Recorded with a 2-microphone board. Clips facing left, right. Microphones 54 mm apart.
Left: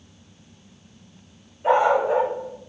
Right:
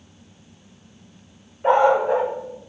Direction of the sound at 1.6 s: 45° right (ahead or behind).